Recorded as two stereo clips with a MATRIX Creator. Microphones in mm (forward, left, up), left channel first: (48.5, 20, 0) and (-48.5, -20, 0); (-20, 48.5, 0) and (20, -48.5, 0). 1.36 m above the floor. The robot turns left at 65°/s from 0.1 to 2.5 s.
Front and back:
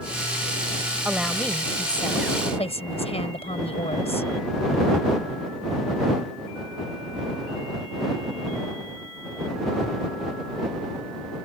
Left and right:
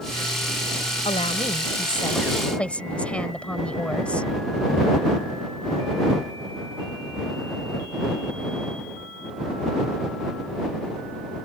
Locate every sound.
1.1 s a woman speaking: 125° left; by 4.3 s 35° left